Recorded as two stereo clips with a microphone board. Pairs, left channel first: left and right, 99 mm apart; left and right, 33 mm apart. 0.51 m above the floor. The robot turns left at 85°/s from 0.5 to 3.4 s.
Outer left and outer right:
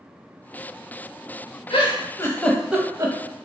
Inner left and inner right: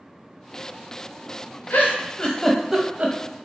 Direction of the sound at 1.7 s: 75° left (ahead or behind).